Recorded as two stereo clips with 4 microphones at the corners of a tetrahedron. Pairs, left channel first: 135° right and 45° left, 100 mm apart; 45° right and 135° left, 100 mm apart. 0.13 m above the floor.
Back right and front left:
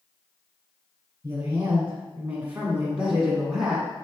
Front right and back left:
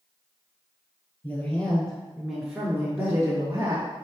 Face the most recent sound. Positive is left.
turn(degrees=135)